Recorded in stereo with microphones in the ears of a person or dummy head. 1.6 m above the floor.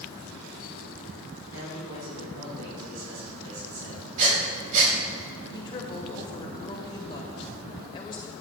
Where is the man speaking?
85° right, 4.5 m.